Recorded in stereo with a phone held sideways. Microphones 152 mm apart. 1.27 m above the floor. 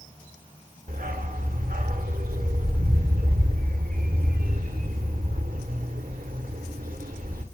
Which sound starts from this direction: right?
A dog barking, at 0.9 s.